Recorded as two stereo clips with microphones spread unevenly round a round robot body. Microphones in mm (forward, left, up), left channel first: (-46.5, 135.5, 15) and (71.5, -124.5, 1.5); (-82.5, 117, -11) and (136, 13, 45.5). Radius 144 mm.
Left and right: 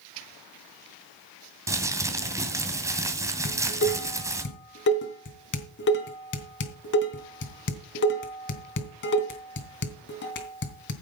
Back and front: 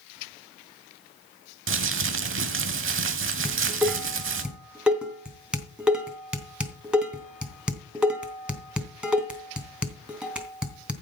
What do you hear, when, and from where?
1.7 s crumpling: 15° left, 2 m
3.5 s dishes clattering: 60° left, 3 m